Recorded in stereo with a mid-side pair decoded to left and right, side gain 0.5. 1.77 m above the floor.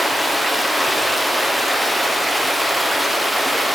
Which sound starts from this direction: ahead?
Running water, at 0.0 s.